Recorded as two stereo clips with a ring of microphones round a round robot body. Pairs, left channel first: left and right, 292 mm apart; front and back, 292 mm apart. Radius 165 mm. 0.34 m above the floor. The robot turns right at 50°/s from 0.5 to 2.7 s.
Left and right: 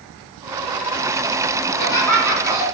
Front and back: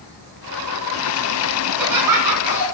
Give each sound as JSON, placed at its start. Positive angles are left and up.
{"t": 1.7, "sound": "laughter", "azimuth_deg": 155, "distance_m": 4.0}